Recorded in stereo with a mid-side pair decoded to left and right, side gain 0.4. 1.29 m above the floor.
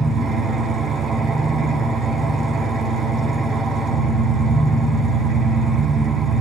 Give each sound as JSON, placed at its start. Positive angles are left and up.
{"t": 0.0, "sound": "an engine running", "azimuth_deg": -60, "distance_m": 4.5}